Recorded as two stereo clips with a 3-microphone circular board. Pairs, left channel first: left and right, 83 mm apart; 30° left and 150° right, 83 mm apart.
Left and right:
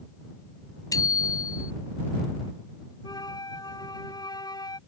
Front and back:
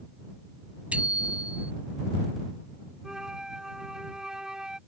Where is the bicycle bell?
135° left.